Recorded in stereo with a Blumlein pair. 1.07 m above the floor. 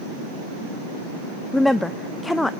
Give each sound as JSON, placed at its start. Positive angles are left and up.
{"t": 1.5, "sound": "a woman speaking", "azimuth_deg": 5, "distance_m": 0.8}